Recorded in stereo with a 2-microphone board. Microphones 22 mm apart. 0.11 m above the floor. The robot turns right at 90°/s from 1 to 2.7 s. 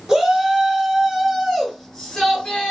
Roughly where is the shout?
Ahead right.